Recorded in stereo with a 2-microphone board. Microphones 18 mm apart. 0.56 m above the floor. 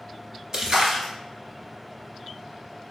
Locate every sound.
0.5 s a splash: 30° right (ahead or behind), 0.9 m